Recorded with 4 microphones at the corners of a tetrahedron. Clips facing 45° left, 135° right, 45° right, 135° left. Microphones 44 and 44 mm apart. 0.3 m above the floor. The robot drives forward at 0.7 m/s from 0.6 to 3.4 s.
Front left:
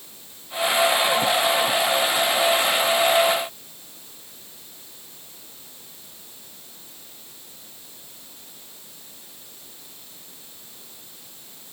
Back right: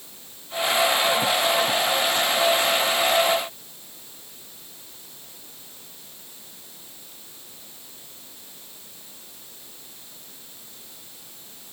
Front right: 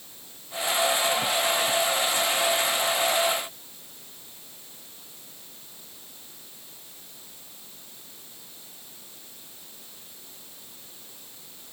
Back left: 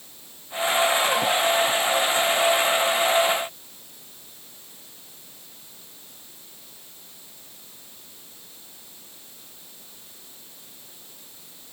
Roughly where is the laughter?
No laughter in this recording.